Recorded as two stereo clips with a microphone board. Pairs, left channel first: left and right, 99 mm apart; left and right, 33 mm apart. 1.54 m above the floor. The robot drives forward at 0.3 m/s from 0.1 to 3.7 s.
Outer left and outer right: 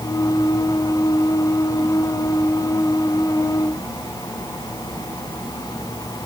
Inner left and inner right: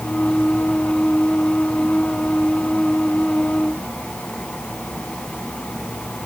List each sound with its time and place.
Only background noise.